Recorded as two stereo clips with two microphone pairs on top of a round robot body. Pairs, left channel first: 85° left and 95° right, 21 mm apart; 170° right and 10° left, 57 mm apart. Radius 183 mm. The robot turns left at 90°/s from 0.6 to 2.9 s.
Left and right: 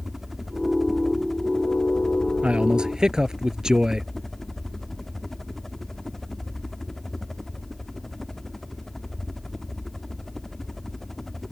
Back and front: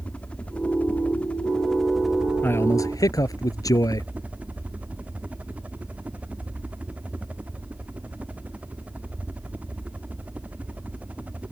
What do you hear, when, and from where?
0.0 s a helicopter: 140° right; by 11.5 s 15° left
2.4 s a man speaking: 110° right; by 4.1 s 150° right